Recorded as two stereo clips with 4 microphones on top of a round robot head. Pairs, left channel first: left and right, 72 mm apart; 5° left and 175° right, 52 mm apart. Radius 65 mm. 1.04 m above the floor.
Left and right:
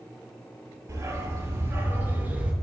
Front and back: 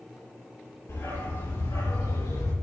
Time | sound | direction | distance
0.9 | a dog barking | 40° right | 6 m